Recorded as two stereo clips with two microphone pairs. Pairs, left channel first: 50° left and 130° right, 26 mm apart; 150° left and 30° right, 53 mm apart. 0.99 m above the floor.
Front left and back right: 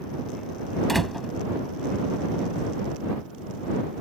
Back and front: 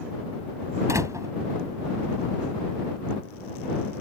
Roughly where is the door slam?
Ahead right.